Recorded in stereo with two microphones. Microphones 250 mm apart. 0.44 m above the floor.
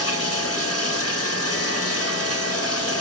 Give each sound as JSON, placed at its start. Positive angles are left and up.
{"t": 0.0, "sound": "running water", "side_deg": 70, "distance_m": 1.5}